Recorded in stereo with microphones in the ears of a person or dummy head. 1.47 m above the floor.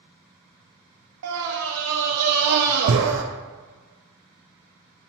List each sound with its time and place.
1.2 s a scream: 85° right, 0.5 m